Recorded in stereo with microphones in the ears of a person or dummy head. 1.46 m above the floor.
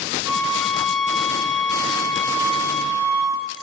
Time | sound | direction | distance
0.2 | a flute | 80° left | 4.5 m